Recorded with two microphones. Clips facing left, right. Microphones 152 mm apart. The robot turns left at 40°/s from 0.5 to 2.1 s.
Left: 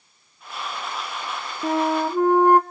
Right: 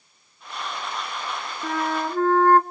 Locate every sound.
1.6 s a flute: 30° left (ahead or behind), 0.9 m; by 2.6 s 15° left (ahead or behind), 0.9 m